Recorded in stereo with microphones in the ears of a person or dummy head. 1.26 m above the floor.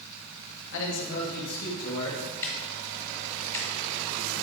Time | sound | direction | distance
0.7 | a man speaking | 75° left (ahead or behind) | 1.1 m
2.4 | ticking | 15° left (ahead or behind) | 1.3 m